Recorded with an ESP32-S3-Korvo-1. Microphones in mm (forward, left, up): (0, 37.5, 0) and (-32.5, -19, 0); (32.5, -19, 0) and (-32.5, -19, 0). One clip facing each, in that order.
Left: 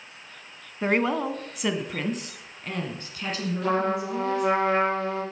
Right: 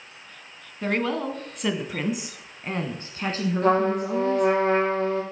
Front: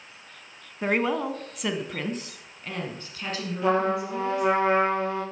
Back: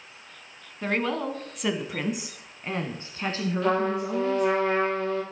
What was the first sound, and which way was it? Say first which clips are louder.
A woman speaking: left 2 dB, front 2 dB; 45° left.